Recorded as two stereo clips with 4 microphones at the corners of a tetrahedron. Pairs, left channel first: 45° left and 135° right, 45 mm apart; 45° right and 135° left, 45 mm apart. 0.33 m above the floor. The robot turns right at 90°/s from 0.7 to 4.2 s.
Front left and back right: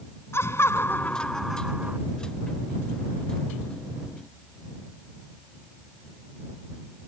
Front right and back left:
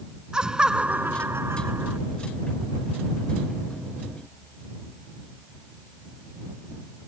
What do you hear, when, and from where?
0.3 s laughter: 65° left; by 2.0 s straight behind